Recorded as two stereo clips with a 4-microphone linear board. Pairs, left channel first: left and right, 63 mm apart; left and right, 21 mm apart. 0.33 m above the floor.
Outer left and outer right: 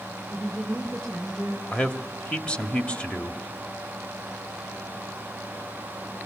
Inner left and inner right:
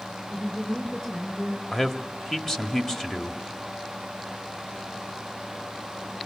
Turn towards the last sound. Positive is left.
turn(degrees=20)  # may be behind; listen again after turning